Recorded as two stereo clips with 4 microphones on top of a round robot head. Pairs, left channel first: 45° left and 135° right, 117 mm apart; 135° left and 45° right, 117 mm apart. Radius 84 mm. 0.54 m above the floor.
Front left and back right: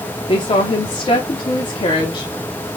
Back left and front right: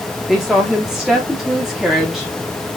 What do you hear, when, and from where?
0.3 s a woman speaking: 40° left, 1.2 m